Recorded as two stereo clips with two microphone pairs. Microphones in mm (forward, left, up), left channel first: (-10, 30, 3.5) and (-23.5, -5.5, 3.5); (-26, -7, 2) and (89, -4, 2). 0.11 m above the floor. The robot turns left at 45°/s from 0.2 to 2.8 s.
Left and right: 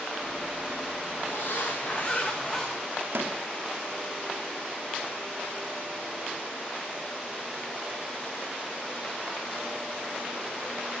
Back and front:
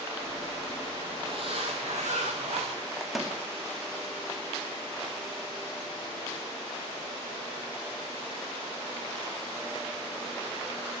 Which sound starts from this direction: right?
A microwave, at 3.0 s.